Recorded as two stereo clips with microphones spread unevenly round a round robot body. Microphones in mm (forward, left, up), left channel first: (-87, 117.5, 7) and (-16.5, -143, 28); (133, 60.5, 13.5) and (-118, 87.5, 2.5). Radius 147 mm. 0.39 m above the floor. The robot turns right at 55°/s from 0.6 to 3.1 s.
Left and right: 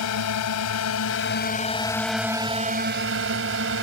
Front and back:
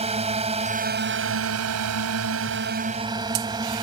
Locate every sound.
0.0 s a drone: 110° left; by 3.8 s 110° right